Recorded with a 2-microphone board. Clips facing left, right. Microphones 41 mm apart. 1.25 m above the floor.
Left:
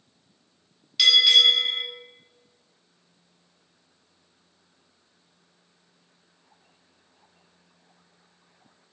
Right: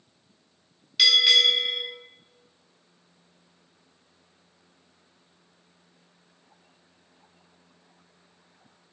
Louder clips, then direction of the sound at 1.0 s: Left 2 dB; 5° right (ahead or behind).